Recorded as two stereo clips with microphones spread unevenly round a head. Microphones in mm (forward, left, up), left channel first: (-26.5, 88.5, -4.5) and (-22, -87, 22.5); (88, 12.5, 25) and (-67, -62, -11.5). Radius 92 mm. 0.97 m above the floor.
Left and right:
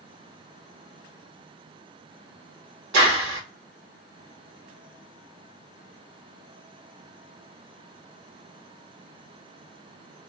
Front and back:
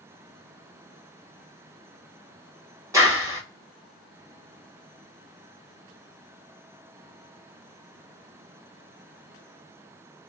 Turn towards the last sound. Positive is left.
turn(degrees=-90)